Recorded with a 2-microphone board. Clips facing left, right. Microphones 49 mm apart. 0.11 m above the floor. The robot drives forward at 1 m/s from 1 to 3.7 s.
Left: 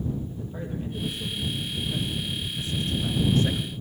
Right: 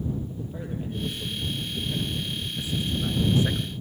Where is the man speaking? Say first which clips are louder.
Even; 10° right (ahead or behind), 3 m; by 3.7 s 20° right (ahead or behind), 1.6 m.